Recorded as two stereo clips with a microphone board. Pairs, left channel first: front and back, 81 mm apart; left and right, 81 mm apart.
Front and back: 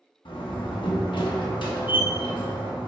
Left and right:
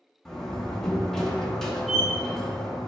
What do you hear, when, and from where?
0.2 s a door slam: 5° left, 1.4 m